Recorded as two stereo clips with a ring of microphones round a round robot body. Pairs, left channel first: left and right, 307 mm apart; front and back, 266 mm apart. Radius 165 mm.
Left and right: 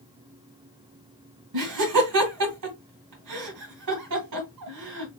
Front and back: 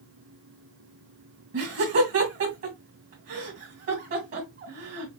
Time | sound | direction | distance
1.5 | laughter | 125° right | 2 m